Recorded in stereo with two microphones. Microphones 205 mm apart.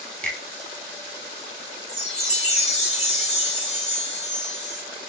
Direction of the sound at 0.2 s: 5° left (ahead or behind).